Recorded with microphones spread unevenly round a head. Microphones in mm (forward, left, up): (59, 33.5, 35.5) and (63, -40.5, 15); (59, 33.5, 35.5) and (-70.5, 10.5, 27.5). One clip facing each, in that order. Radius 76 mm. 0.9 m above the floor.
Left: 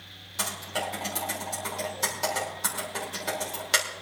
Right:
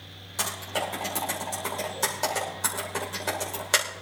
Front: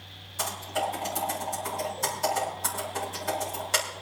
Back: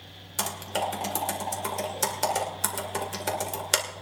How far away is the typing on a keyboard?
About 2 m.